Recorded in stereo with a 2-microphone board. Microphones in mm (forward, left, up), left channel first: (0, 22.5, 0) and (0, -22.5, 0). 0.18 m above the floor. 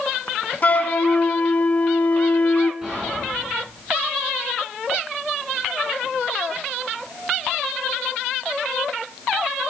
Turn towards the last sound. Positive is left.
turn(degrees=-15)  # may be behind; listen again after turning